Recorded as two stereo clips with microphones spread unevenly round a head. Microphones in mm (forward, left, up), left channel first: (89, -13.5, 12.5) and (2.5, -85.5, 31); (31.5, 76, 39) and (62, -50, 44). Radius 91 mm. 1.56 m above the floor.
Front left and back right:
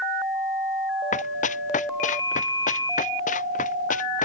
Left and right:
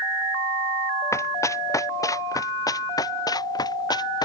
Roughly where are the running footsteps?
Ahead left.